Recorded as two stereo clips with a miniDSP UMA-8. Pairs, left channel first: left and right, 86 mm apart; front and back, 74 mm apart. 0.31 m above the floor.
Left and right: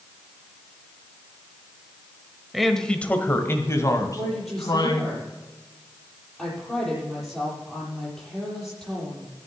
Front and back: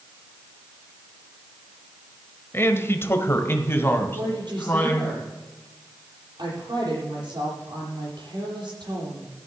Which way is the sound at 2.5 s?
5° right.